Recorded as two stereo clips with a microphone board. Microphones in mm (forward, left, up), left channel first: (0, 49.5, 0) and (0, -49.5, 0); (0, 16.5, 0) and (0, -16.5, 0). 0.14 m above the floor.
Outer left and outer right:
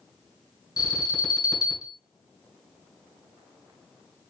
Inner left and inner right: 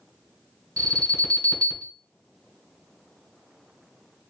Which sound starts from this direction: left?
An alarm, at 0.8 s.